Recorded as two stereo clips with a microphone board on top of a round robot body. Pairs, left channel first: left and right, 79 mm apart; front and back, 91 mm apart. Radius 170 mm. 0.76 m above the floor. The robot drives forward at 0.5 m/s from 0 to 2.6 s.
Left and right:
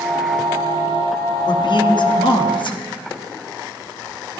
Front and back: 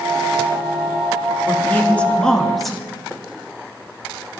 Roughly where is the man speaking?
Ahead left.